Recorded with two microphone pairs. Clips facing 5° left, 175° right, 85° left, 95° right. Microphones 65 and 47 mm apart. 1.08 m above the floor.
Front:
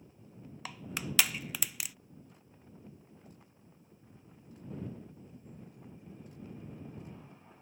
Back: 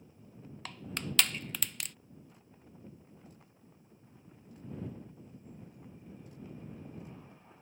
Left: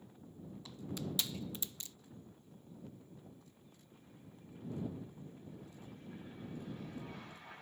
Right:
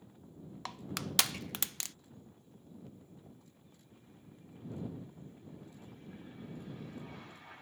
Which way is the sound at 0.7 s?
80° right.